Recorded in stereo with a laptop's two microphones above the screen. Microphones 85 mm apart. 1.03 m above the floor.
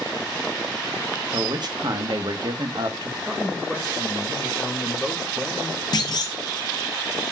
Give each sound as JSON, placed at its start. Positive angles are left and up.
{"t": 1.3, "sound": "a man speaking", "side_deg": -55, "distance_m": 0.6}
{"t": 3.3, "sound": "a man speaking", "side_deg": 0, "distance_m": 0.8}
{"t": 5.9, "sound": "a clunk", "side_deg": 55, "distance_m": 0.6}